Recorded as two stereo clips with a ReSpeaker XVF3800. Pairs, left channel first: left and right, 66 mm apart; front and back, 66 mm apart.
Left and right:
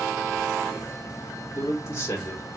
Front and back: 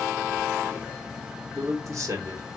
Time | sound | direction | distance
1.5 | a man speaking | 140° left | 1.2 m